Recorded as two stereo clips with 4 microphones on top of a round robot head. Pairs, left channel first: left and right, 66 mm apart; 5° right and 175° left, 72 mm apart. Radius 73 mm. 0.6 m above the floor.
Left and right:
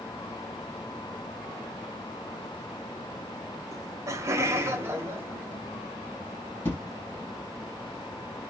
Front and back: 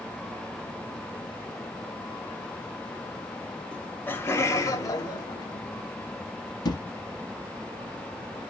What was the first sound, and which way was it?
Laughter, 80° right.